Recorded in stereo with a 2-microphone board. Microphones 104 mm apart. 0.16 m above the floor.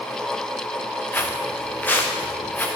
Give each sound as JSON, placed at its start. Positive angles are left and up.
{"t": 1.1, "sound": "footsteps", "side_deg": 15, "distance_m": 2.0}